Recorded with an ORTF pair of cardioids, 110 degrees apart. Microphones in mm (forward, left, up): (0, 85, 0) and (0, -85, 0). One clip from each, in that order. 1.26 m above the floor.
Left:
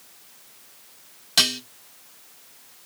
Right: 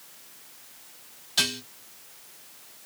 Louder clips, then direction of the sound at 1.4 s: Left 5 dB; 55° left.